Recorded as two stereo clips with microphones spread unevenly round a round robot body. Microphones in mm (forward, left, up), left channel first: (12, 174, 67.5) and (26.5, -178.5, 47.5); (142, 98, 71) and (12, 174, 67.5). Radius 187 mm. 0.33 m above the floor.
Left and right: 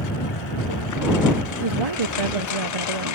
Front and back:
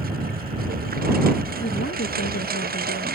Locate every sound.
0.0 s a lawn mower: 135° left; by 3.2 s 140° left
1.6 s a woman speaking: 80° right